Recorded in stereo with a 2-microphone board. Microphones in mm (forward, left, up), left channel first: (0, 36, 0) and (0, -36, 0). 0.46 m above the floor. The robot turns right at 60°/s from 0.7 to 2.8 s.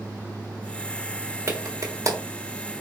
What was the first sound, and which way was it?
A clap, 45° right (ahead or behind).